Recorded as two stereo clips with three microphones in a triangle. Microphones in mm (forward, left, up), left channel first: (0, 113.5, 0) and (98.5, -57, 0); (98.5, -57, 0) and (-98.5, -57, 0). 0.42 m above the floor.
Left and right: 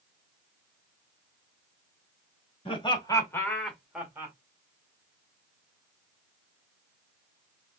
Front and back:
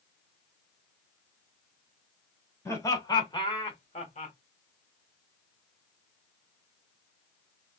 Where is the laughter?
70° left, 1.9 m; by 4.3 s 5° left, 1.7 m.